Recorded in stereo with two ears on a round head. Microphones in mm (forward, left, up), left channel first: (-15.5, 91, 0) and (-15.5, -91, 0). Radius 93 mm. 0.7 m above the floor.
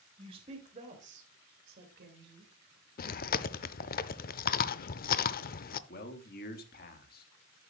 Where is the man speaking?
50° left (ahead or behind), 1.6 m.